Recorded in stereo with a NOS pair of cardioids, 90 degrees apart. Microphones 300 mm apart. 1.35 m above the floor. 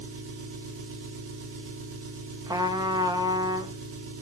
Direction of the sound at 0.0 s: 45° right.